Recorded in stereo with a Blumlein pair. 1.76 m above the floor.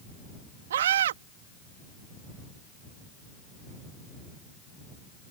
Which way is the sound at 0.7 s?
60° right.